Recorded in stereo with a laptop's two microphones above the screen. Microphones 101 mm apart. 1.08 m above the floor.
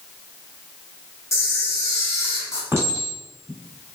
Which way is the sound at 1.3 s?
30° left (ahead or behind).